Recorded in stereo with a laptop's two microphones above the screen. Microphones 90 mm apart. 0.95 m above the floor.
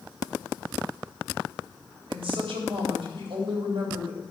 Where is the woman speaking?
75° right (ahead or behind), 3.5 m.